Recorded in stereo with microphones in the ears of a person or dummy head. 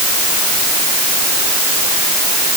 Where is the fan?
No fan in this recording.